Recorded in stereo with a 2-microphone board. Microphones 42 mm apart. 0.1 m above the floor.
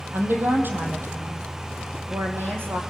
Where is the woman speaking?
60° right (ahead or behind), 4 m; by 2.8 s 65° right (ahead or behind), 5.5 m.